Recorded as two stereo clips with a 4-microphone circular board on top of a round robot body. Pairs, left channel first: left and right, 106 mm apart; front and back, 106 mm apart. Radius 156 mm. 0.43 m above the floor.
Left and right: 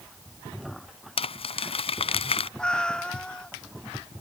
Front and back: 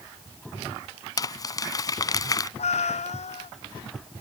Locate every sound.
1.2 s crumpling: 55° left
2.6 s a cat meowing: 10° left